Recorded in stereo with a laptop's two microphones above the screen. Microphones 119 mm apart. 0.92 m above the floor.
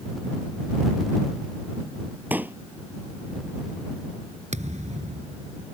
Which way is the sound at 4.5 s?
75° right (ahead or behind).